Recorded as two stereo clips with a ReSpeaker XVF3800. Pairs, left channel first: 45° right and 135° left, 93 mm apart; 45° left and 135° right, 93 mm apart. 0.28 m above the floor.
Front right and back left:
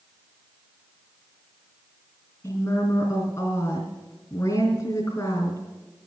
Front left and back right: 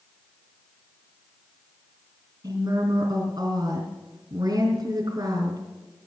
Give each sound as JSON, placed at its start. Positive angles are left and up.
{"t": 2.4, "sound": "a woman speaking", "azimuth_deg": -90, "distance_m": 3.0}